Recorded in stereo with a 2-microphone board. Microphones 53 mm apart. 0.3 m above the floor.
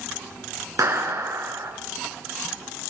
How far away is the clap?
About 4 m.